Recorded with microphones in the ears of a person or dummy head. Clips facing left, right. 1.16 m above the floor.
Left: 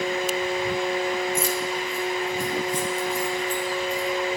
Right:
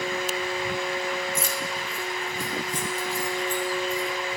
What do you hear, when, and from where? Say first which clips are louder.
1.4 s keys jangling: left 5 dB; 50° right (ahead or behind), 0.9 m; by 4.1 s 55° right (ahead or behind), 3.5 m